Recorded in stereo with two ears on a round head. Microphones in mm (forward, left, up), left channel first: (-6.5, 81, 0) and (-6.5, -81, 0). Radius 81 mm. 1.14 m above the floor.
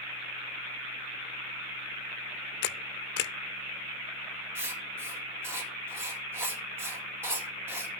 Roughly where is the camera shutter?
Left.